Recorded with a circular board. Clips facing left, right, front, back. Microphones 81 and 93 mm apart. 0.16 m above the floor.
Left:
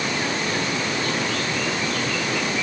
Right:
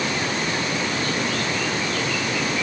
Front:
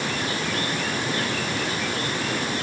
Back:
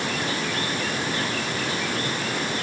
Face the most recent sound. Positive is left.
No sound to turn to.